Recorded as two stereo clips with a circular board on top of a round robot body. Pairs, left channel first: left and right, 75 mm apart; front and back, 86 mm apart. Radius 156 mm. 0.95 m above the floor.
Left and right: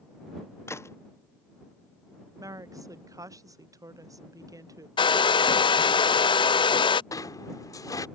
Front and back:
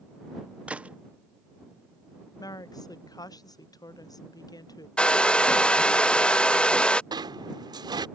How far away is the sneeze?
No sneeze in this recording.